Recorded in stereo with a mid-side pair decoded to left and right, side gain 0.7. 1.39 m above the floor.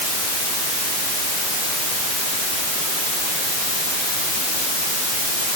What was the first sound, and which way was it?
Only background noise.